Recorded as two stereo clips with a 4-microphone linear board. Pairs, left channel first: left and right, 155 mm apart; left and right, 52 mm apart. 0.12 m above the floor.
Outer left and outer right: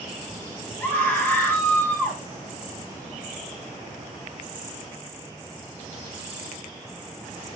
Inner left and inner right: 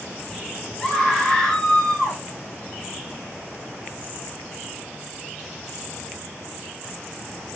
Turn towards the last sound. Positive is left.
turn(degrees=20)  # may be behind; listen again after turning